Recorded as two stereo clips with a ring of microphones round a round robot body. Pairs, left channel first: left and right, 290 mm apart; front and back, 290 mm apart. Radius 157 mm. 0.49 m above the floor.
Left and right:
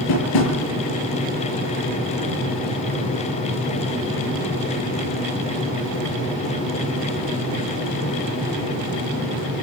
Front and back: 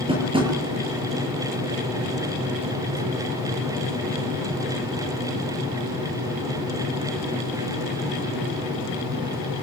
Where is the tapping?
105° left, 6.5 m.